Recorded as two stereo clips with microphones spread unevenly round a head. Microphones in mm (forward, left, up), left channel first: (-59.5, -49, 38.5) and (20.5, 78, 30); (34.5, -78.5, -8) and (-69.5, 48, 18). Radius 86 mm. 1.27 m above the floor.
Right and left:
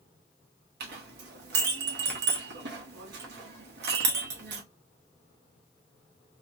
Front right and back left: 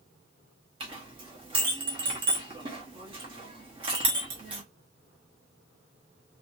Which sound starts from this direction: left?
A clink, at 0.8 s.